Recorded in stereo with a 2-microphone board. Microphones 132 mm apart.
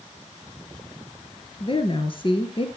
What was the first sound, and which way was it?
A woman speaking, 40° left (ahead or behind).